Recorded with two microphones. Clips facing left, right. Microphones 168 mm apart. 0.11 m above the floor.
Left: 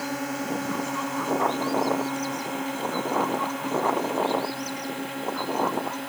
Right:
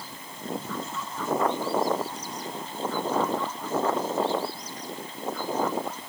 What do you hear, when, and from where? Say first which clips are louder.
0.0 s a drone: left 11 dB; 70° left (ahead or behind); by 6.1 s 65° left (ahead or behind)